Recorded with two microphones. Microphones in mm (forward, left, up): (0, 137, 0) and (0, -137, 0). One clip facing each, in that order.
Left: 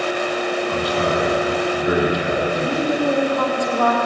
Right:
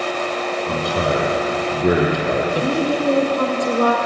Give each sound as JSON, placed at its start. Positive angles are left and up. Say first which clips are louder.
{"t": 0.7, "sound": "a man speaking", "louder": "right 2 dB", "side_deg": -55, "distance_m": 5.0}
{"t": 2.5, "sound": "a woman speaking", "louder": "right 1 dB", "side_deg": -35, "distance_m": 4.0}